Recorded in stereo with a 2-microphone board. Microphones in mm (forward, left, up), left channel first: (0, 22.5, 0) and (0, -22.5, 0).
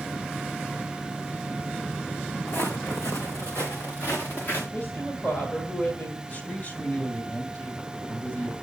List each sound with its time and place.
2.5 s footsteps: 60° left (ahead or behind), 2 m; by 4.6 s 50° left (ahead or behind), 3.5 m
4.7 s a woman speaking: 45° left (ahead or behind), 2.5 m
6.3 s a man speaking: 45° left (ahead or behind), 2 m